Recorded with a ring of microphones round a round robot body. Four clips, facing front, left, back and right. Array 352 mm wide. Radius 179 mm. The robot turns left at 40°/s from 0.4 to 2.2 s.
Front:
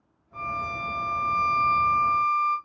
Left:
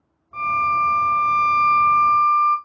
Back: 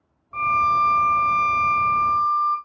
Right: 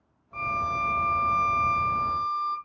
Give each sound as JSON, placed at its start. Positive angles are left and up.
{"t": 0.3, "sound": "a violin", "azimuth_deg": 155, "distance_m": 1.1}